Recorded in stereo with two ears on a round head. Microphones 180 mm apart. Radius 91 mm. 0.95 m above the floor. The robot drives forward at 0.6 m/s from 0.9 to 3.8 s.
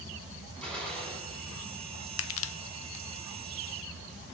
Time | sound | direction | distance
0.6 | a gunshot | 5° left (ahead or behind) | 9 m
2.2 | crushing | 65° left (ahead or behind) | 0.6 m